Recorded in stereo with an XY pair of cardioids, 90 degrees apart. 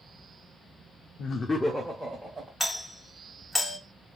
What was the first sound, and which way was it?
Laughter, 65° left.